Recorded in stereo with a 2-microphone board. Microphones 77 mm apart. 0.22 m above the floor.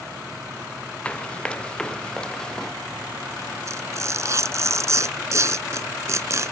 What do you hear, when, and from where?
1.1 s running footsteps: 15° left (ahead or behind); by 2.7 s 5° left (ahead or behind)
3.7 s tearing paper: 40° right (ahead or behind)